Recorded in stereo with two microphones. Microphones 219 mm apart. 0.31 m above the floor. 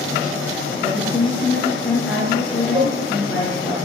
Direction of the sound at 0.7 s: 60° left (ahead or behind).